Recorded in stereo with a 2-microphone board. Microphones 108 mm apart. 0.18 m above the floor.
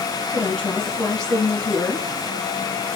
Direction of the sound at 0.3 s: 5° left (ahead or behind).